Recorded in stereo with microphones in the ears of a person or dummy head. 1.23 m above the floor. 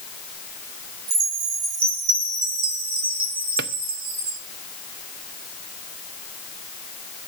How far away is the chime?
About 2 m.